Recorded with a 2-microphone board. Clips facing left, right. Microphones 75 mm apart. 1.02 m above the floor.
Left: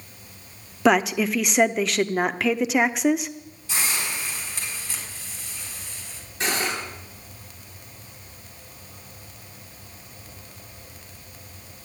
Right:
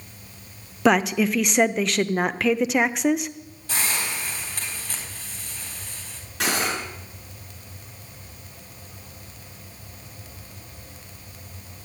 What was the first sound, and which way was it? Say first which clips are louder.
A woman speaking: even; centre (ahead or behind).